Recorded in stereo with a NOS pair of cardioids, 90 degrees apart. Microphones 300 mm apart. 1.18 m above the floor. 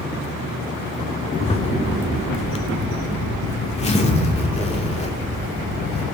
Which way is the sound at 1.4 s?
20° left.